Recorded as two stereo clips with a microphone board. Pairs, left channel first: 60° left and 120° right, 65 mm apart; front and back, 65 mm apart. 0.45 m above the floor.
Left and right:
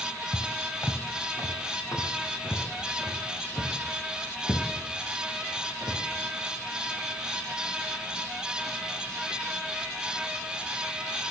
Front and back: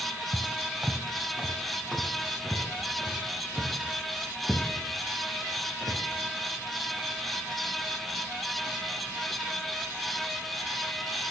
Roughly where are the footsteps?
Behind left.